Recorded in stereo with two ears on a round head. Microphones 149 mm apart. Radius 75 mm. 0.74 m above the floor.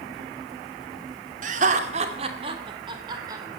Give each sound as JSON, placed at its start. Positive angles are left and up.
{"t": 1.4, "sound": "laughter", "side_deg": -50, "distance_m": 2.0}